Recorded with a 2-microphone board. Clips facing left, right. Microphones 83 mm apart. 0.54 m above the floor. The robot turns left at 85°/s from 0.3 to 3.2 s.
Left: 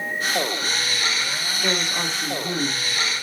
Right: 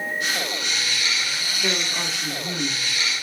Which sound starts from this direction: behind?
A woman speaking, at 1.6 s.